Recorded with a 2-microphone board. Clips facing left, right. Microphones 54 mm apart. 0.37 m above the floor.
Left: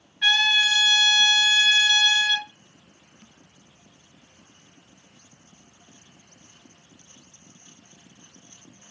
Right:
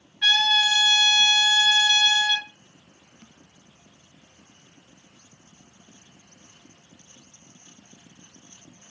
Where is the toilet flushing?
I don't hear a toilet flushing.